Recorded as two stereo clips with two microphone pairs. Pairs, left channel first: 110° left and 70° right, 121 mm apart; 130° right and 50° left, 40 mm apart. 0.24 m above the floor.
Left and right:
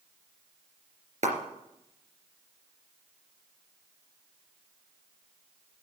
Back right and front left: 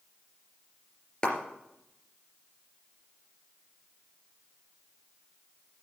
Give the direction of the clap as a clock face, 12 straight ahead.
2 o'clock.